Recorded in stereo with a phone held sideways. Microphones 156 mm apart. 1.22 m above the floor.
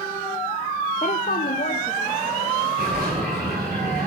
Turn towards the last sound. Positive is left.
turn(degrees=-85)